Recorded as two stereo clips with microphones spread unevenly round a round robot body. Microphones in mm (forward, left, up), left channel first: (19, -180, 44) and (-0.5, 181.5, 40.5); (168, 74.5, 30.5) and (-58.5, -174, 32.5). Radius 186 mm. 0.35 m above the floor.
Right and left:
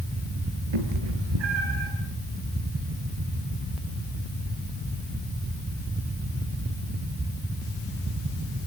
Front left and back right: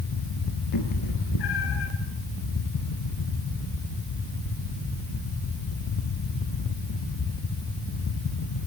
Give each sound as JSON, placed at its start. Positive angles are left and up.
{"t": 0.7, "sound": "a cat meowing", "azimuth_deg": 90, "distance_m": 3.5}